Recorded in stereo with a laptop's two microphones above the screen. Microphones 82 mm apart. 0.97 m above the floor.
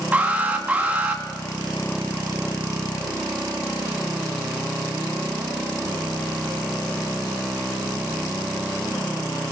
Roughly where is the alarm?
Centre.